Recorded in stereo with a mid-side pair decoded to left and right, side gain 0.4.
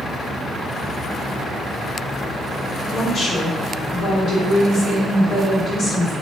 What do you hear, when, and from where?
2.9 s a woman speaking: 60° left, 1.9 m